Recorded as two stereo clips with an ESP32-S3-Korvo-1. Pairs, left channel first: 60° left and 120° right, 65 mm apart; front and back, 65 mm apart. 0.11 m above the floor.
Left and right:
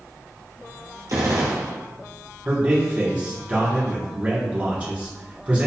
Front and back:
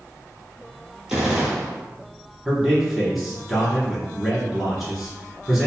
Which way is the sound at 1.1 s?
100° right.